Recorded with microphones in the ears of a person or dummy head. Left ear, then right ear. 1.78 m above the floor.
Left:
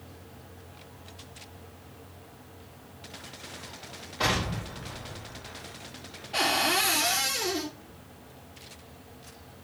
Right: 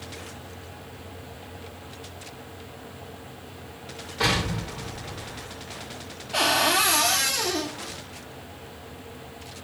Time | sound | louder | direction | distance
4.2 | an explosion | right 3 dB | 10° right (ahead or behind) | 6 m
6.3 | a cupboard door | right 4 dB | 10° right (ahead or behind) | 3 m